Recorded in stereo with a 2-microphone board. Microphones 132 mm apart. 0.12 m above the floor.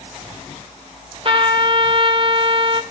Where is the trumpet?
45° right (ahead or behind), 0.9 m.